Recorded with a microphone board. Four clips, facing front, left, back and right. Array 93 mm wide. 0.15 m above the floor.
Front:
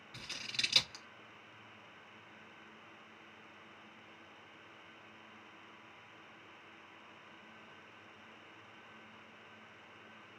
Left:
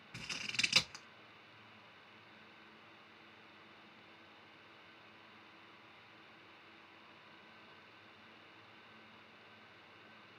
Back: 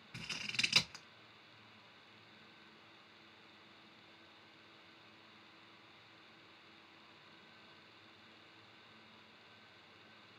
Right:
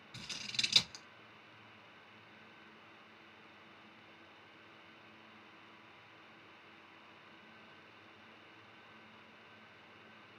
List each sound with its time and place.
0.1 s scissors: 125° left, 0.9 m